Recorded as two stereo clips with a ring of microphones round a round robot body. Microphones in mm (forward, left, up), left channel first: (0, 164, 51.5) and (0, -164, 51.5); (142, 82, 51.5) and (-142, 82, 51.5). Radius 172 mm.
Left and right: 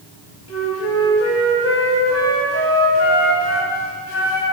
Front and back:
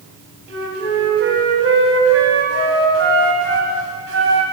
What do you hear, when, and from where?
0.5 s a flute: 135° left, 1.3 m